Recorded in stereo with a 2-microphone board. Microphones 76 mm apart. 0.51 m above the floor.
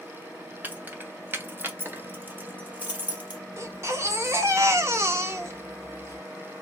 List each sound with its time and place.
0.6 s keys jangling: 25° right (ahead or behind), 0.9 m; by 3.4 s 20° right (ahead or behind), 1.3 m
3.6 s a baby crying: 35° right (ahead or behind), 0.7 m